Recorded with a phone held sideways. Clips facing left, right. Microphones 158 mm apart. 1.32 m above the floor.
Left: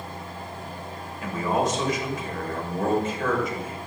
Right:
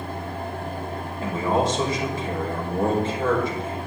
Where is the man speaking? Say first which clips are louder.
Right 2 dB; 30° right (ahead or behind), 5.5 m.